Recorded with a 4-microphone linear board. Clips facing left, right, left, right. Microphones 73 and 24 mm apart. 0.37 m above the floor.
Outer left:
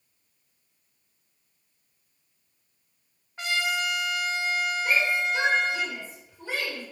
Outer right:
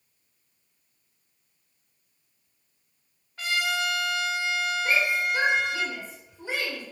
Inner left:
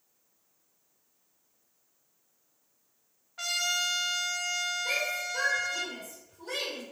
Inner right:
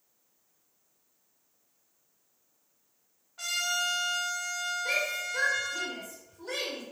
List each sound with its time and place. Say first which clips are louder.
3.4 s a trumpet: even, inner left 1 dB; 25° left (ahead or behind), 0.7 m
4.8 s a shout: even, even; 15° right (ahead or behind), 1.2 m